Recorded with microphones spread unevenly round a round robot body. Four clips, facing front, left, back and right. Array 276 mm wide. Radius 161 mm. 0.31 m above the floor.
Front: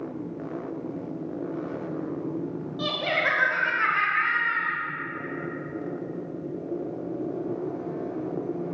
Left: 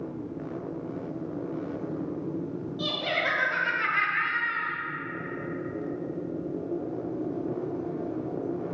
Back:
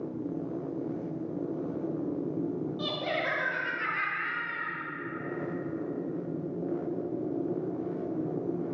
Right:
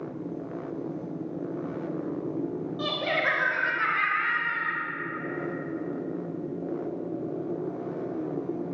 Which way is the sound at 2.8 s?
150° right.